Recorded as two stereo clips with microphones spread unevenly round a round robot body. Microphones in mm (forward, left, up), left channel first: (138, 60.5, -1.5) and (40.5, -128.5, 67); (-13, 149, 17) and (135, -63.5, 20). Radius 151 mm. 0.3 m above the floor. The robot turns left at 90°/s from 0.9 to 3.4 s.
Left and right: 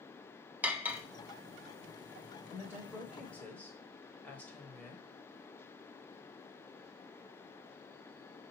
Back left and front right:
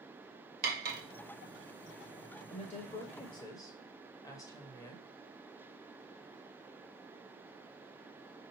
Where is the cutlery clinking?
20° right, 0.6 m; by 1.0 s 30° right, 0.6 m.